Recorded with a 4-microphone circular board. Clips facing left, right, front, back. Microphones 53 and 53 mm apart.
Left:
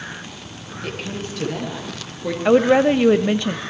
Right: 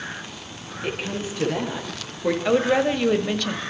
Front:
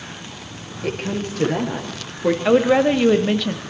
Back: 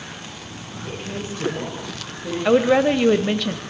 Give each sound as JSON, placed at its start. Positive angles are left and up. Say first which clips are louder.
{"t": 0.8, "sound": "a woman speaking", "louder": "right 1 dB, front 6 dB", "azimuth_deg": -15, "distance_m": 6.5}
{"t": 2.5, "sound": "a woman speaking", "louder": "left 7 dB, even", "azimuth_deg": 85, "distance_m": 1.0}